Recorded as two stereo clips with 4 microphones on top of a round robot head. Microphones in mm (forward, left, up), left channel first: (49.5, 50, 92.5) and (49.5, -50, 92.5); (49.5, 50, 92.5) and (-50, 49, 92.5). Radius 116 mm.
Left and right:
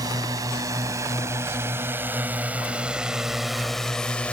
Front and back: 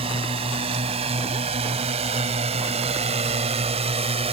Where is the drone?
150° right; by 4.3 s 170° left.